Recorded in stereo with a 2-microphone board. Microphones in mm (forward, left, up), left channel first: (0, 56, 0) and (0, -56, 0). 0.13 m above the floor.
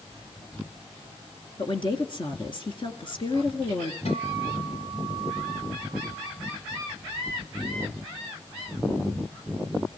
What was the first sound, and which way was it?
A woman speaking, 45° left (ahead or behind).